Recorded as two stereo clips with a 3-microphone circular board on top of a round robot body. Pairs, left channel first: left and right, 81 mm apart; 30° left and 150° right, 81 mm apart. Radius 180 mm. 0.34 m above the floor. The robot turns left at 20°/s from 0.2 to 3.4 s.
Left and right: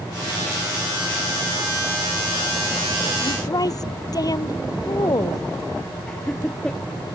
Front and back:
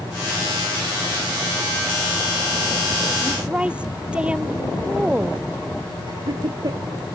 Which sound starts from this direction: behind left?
A woman speaking, at 3.2 s.